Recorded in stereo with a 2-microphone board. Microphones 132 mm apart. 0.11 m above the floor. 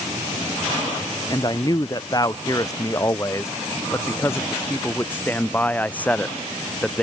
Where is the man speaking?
30° left (ahead or behind); by 7.0 s 5° left (ahead or behind).